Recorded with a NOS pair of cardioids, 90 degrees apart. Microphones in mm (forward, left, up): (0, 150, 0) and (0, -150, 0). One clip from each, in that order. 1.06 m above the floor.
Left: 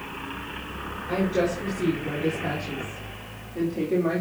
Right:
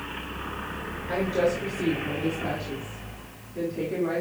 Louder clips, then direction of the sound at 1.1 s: Even; 10° left.